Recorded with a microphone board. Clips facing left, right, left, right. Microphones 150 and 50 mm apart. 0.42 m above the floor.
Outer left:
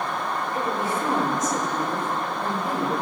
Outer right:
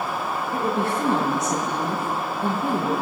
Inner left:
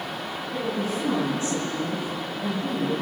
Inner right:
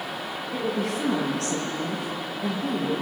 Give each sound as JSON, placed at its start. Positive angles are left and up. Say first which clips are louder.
{"t": 0.5, "sound": "a woman speaking", "louder": "outer right 4 dB, inner right 1 dB", "side_deg": -75, "distance_m": 7.5}